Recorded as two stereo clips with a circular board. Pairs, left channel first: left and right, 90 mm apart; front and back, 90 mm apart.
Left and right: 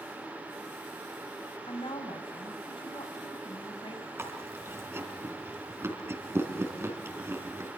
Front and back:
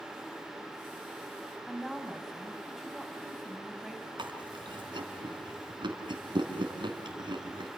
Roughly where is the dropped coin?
No dropped coin in this recording.